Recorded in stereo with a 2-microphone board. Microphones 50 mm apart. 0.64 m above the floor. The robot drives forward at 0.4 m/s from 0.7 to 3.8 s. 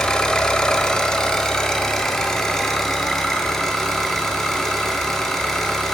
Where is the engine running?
15° left (ahead or behind), 1.1 m; by 5.9 s 5° left (ahead or behind), 2.5 m.